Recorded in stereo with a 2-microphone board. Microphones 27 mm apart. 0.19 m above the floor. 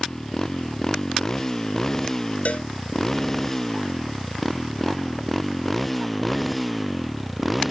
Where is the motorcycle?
25° left (ahead or behind); by 7.7 s centre (ahead or behind).